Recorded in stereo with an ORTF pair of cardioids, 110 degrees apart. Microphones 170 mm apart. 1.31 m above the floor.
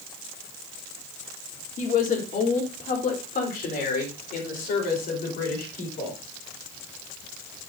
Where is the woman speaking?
50° left, 3 m; by 6.2 s 65° left, 5.5 m.